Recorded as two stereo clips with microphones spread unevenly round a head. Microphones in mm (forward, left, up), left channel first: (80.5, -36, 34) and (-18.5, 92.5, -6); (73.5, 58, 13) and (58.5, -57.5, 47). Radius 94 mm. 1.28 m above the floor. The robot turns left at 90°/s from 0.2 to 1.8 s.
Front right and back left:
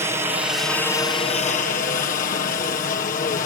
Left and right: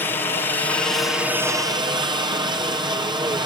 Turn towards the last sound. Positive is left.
turn(degrees=-50)